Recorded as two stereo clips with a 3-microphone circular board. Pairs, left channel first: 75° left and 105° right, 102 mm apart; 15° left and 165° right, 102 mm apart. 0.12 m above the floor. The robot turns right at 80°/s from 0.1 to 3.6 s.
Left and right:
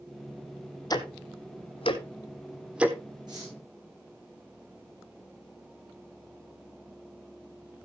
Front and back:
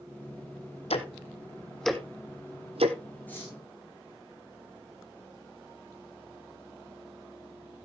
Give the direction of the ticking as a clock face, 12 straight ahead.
11 o'clock.